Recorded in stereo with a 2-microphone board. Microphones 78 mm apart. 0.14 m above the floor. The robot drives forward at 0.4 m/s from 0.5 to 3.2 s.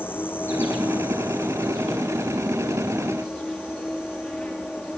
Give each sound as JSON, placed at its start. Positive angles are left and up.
{"t": 0.0, "sound": "an insect", "side_deg": 25, "distance_m": 1.3}